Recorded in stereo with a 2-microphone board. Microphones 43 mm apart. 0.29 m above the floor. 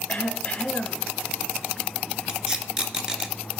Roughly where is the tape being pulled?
Centre.